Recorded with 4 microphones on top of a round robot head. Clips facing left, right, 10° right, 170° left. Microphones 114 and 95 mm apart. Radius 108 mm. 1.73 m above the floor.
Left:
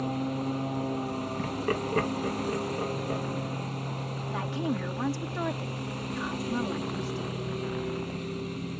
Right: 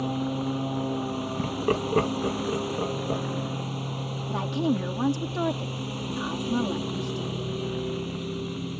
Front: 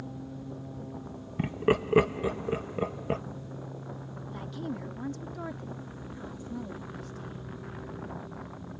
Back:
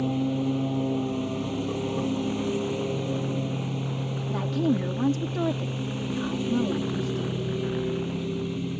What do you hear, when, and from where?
0.0 s a lawn mower: 170° right
1.4 s laughter: 20° right
4.3 s a woman speaking: 155° right